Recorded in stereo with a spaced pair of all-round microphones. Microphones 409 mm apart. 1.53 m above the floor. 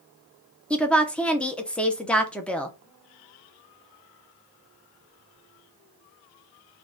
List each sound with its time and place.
0.7 s a woman speaking: 5° left (ahead or behind), 0.6 m